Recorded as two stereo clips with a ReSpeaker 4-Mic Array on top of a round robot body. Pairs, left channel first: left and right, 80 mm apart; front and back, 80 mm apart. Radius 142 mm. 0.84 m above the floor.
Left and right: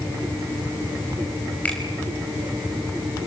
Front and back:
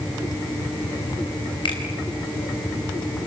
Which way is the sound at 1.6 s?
20° left.